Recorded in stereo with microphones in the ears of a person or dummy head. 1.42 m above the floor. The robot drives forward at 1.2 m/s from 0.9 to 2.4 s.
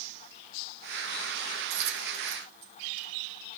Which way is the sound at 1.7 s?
60° right (ahead or behind).